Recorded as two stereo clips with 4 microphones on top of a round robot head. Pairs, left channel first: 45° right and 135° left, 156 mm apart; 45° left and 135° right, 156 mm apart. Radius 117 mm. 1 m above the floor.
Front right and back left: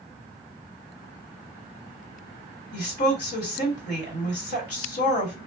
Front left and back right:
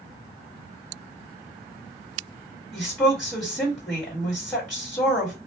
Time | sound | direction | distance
2.7 | a woman speaking | 35° right | 1.8 m